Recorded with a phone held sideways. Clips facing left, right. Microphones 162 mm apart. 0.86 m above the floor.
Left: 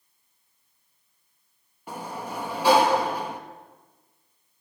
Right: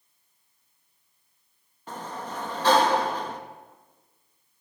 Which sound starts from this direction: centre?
A sliding door, at 1.9 s.